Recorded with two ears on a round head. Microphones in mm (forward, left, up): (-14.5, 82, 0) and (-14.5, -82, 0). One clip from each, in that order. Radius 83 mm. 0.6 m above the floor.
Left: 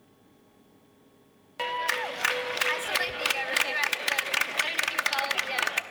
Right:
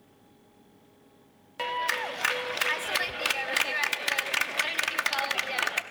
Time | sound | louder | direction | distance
1.6 | a clap | even | 5° left (ahead or behind) | 0.6 m